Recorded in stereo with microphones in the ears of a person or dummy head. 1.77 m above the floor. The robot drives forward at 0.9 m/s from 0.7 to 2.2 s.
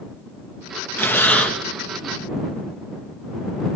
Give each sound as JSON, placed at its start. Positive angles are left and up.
{"t": 1.0, "sound": "breathing", "side_deg": 10, "distance_m": 1.4}